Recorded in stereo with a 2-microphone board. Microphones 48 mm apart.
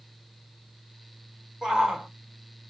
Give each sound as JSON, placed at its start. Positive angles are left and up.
{"t": 1.6, "sound": "a shout", "side_deg": -15, "distance_m": 1.7}